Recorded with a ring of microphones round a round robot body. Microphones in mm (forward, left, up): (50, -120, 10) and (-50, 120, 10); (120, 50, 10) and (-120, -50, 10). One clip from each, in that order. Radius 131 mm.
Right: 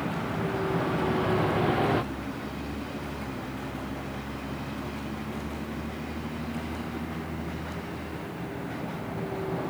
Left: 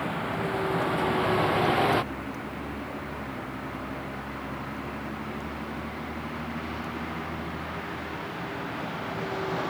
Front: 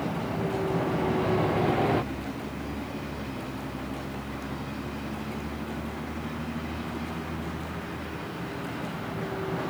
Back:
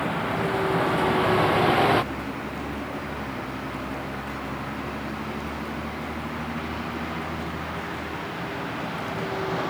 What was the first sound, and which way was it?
A vehicle, 170° left.